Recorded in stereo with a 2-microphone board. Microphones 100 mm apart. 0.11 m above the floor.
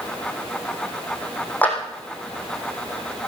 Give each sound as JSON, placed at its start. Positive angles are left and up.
{"t": 1.6, "sound": "a clap", "side_deg": 15, "distance_m": 4.0}